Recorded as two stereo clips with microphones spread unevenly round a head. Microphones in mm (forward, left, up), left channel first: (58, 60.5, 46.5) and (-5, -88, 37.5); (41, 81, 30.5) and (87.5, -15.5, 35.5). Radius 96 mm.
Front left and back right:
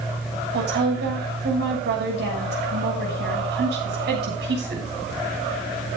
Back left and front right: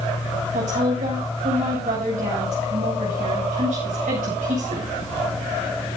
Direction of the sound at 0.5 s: 95° right.